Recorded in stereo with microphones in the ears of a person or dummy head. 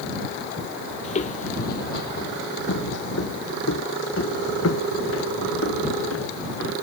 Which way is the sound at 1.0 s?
35° left (ahead or behind).